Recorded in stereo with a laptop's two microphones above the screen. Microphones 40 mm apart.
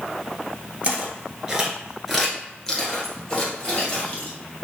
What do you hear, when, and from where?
0.8 s footsteps: 30° right (ahead or behind), 1.1 m; by 4.3 s 35° left (ahead or behind), 1.7 m